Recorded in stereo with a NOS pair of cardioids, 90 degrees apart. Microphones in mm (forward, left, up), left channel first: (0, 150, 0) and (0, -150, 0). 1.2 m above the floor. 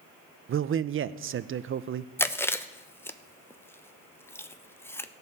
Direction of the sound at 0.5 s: 45° right.